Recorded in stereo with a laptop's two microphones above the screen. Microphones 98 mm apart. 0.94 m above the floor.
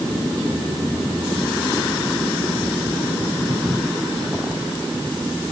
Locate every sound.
Only background noise.